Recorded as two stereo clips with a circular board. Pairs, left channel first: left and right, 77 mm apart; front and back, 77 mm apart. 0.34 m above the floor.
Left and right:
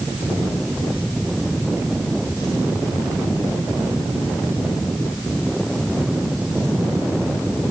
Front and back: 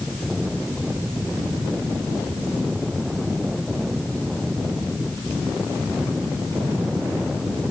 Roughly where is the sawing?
I don't hear sawing.